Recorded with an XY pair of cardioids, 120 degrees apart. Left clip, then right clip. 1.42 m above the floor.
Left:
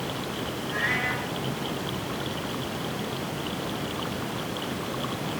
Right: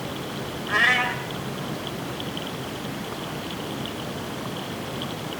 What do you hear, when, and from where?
0.7 s a cat meowing: 70° right, 3 m